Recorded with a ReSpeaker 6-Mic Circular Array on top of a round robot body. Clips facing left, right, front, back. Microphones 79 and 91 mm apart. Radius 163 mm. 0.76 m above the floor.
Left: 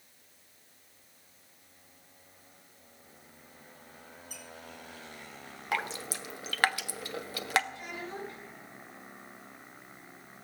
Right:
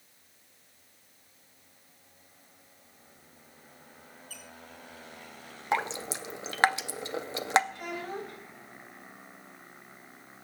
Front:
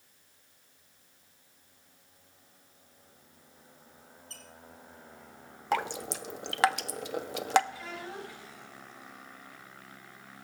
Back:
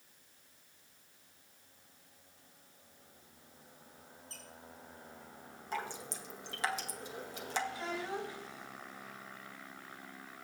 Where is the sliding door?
I don't hear a sliding door.